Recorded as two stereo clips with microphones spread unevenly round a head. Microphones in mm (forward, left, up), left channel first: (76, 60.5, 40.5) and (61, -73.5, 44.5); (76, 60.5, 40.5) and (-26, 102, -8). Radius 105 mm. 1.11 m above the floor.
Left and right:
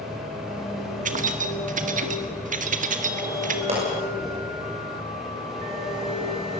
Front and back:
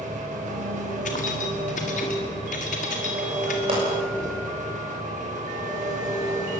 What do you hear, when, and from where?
0.0 s an engine running: 175° left, 4 m
1.1 s keys jangling: 70° right, 1.7 m
3.7 s a pop: 150° right, 6 m